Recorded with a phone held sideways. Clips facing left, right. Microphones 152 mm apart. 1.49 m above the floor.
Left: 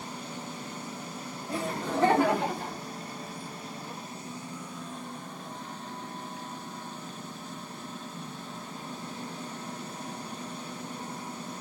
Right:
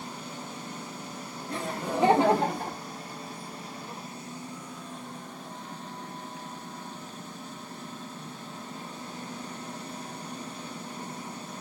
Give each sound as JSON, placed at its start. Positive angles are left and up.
{"t": 1.5, "sound": "laughter", "side_deg": 10, "distance_m": 0.9}